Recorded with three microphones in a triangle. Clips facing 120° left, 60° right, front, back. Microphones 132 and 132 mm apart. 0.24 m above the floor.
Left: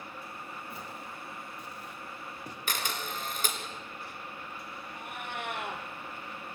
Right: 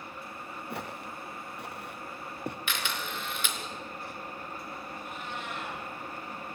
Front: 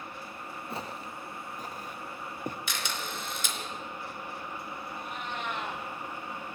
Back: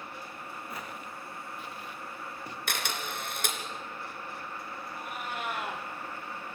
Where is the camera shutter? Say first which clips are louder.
Even, back 1 dB; 165° left, 3 m.